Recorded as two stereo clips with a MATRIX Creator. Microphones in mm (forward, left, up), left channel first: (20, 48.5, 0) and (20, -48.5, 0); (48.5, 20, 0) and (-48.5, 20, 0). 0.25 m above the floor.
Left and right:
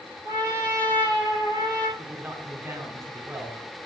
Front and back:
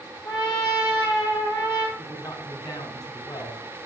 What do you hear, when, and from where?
0.2 s a trumpet: 45° right, 2.5 m
2.0 s a man speaking: 35° right, 1.9 m